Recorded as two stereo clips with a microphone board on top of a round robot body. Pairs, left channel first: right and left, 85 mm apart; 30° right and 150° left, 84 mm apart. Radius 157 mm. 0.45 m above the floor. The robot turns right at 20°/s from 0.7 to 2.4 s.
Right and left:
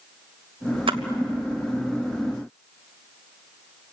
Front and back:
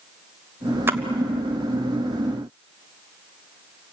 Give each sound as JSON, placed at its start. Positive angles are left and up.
{"t": 0.9, "sound": "a splash", "azimuth_deg": 85, "distance_m": 1.2}